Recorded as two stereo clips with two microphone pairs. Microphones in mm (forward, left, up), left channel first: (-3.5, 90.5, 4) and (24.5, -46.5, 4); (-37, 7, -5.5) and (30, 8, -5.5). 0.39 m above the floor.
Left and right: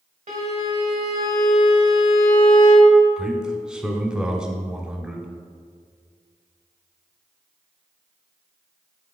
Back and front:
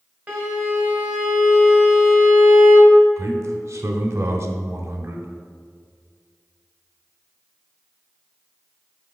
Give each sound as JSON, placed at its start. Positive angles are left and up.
{"t": 0.3, "sound": "a violin", "azimuth_deg": -65, "distance_m": 1.4}
{"t": 3.2, "sound": "a man speaking", "azimuth_deg": 0, "distance_m": 0.9}